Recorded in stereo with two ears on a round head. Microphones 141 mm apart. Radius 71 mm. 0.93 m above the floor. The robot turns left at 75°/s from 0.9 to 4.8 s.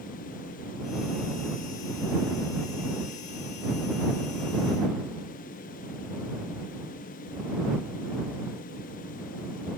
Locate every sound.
Only background noise.